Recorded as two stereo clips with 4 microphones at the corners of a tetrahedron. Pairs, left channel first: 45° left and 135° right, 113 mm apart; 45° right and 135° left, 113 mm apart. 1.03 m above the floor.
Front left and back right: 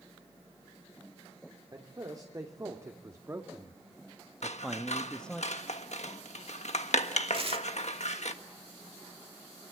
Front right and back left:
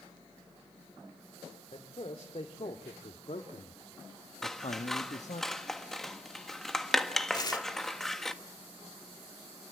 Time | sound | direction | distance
1.7 | a man speaking | 80° right | 2.5 m
4.4 | scissors | 40° left | 1.5 m
7.3 | tearing paper | 100° right | 2.0 m